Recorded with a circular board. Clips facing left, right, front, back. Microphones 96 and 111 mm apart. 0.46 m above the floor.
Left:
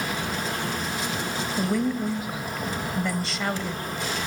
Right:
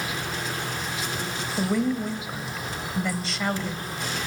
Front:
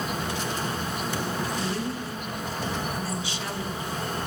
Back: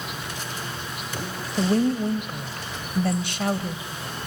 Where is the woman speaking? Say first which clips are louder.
Right 1 dB, back 8 dB; straight behind, 2 m.